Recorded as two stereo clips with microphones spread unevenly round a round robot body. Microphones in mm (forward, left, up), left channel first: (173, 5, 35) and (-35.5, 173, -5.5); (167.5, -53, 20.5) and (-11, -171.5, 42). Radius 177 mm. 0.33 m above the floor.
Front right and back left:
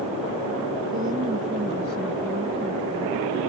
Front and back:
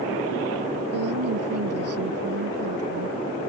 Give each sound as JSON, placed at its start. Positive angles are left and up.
{"t": 0.9, "sound": "a woman speaking", "azimuth_deg": -150}